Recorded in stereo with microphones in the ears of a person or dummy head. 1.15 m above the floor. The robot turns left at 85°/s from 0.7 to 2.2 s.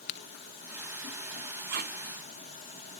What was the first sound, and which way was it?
A crack, 55° left (ahead or behind).